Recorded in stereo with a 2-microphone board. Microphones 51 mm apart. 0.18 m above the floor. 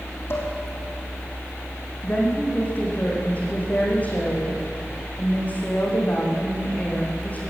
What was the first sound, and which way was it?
Dishes clattering, 45° left (ahead or behind).